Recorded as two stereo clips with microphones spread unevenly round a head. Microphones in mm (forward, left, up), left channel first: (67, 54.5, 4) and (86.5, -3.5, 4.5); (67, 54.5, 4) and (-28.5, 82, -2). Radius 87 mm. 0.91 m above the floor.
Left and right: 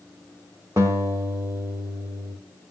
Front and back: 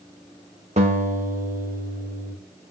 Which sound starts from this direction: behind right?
A guitar, at 0.8 s.